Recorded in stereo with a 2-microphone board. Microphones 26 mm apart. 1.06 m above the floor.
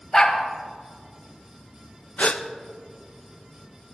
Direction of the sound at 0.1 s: 25° left (ahead or behind).